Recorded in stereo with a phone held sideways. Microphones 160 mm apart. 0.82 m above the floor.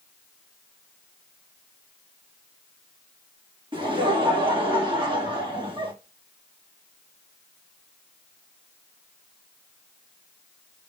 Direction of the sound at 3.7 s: 30° right (ahead or behind).